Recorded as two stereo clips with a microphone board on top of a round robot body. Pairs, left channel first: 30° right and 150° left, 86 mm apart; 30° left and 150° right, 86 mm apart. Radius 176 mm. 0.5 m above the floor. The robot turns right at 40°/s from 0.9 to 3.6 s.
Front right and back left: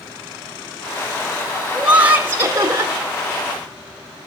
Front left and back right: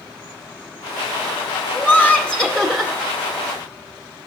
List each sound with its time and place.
1.7 s laughter: 80° left, 0.9 m; by 2.9 s 130° left, 0.9 m